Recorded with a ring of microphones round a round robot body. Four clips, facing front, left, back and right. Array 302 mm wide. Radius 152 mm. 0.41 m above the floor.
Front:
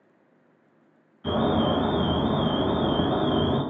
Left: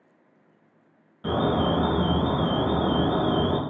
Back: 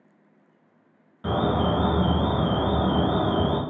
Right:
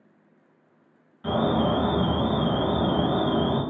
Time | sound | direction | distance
1.2 | an alarm | 165° left | 1.3 m